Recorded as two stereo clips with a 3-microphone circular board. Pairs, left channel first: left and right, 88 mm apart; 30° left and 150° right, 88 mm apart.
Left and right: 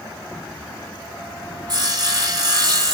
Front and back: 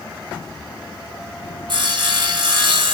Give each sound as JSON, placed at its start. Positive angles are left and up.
{"t": 1.7, "sound": "sawing", "azimuth_deg": -125, "distance_m": 0.9}